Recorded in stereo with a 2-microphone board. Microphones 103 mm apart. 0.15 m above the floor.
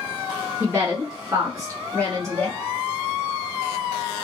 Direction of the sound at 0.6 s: 25° right (ahead or behind).